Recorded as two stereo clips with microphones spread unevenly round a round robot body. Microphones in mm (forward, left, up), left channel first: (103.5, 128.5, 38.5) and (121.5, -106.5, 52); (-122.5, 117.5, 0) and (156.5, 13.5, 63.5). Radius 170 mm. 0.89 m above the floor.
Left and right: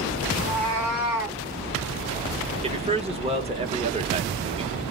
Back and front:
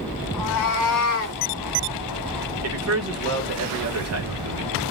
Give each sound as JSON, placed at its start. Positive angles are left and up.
{"t": 0.3, "sound": "a cat meowing", "azimuth_deg": -175, "distance_m": 1.1}
{"t": 2.6, "sound": "a man speaking", "azimuth_deg": -30, "distance_m": 1.1}